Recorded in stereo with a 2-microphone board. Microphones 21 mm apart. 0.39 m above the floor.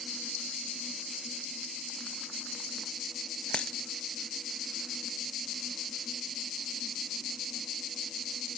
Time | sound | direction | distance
3.5 | a dropped coin | 65° left (ahead or behind) | 0.5 m